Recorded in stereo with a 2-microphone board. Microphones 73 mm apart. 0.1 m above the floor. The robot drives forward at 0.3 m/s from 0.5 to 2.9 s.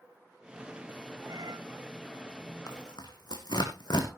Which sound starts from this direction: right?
A cat meowing, at 1.2 s.